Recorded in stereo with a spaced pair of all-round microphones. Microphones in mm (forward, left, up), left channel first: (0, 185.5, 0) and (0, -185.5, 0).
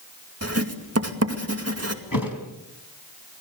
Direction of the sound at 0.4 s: 40° right (ahead or behind).